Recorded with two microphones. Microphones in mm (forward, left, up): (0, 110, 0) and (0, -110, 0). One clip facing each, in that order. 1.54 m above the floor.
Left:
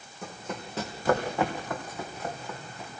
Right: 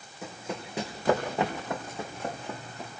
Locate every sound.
0.2 s running footsteps: 5° right (ahead or behind), 4 m; by 2.9 s 35° right (ahead or behind), 4.5 m